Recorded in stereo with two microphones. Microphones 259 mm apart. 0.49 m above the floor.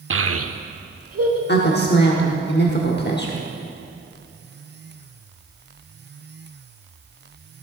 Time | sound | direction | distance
0.1 | a child speaking | 50° right (ahead or behind) | 0.5 m
1.5 | a woman speaking | 40° left (ahead or behind) | 1.0 m